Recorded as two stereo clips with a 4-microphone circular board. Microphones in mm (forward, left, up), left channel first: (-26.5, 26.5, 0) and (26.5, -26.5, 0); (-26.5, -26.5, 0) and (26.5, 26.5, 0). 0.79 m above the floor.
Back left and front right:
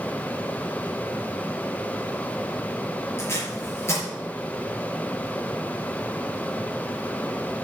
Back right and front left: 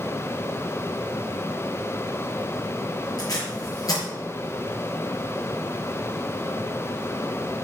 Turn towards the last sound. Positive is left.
turn(degrees=-170)